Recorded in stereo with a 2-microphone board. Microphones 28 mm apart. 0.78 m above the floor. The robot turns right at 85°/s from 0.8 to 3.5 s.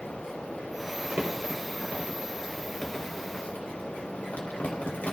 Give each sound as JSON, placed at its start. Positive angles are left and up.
{"t": 1.0, "sound": "crumpling", "side_deg": -40, "distance_m": 4.0}